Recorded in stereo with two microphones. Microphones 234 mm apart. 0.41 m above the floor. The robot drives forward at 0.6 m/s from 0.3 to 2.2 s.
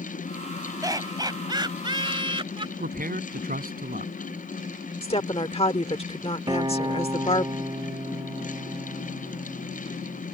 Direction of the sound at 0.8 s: 15° right (ahead or behind).